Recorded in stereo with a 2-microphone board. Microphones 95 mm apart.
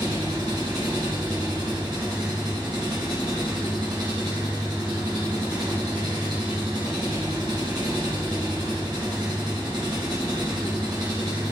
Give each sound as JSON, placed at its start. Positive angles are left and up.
{"t": 0.0, "sound": "an engine running", "side_deg": -50, "distance_m": 3.5}